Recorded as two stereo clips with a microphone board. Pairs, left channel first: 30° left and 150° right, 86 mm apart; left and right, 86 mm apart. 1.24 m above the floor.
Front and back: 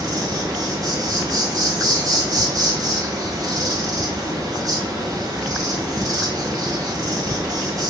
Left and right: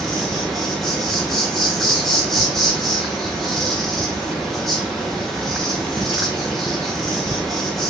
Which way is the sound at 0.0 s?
175° left.